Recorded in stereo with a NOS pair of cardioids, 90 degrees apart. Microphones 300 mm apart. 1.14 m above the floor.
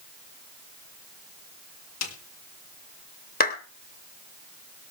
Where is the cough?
I don't hear a cough.